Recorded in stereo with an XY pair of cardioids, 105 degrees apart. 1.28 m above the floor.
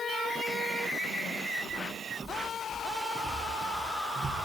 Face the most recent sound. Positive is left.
turn(degrees=-35)